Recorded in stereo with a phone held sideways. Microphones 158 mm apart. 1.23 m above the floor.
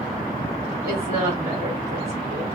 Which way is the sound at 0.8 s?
15° right (ahead or behind).